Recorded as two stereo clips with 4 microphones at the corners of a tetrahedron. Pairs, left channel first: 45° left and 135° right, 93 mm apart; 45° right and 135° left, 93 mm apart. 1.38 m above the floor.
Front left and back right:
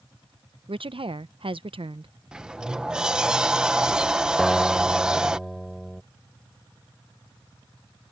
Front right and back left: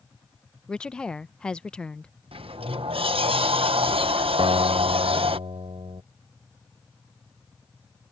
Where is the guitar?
135° left.